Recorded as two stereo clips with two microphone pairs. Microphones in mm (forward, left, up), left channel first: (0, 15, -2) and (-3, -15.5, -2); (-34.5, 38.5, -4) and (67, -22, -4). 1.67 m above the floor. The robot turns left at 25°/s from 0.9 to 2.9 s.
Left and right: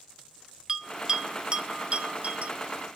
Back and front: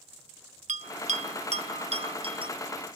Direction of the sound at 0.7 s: 25° right.